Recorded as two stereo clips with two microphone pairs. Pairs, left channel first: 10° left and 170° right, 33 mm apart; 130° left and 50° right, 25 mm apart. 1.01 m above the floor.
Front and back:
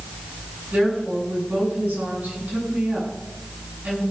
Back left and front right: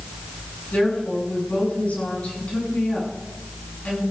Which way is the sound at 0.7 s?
155° left.